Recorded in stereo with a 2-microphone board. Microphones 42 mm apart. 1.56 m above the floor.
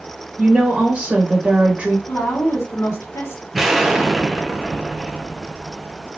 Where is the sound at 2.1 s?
80° left, 2.5 m.